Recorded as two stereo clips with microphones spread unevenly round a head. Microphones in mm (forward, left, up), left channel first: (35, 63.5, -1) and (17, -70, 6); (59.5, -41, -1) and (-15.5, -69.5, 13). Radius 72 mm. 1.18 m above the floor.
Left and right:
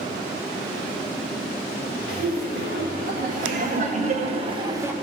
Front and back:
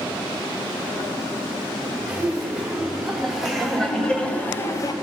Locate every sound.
2.1 s laughter: 80° right, 3 m; by 4.9 s 20° right, 0.8 m